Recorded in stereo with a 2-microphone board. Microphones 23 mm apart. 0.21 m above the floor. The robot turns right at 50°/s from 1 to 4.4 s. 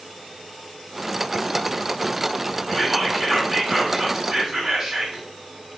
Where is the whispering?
175° right, 1.6 m; by 5.2 s 85° right, 1.6 m.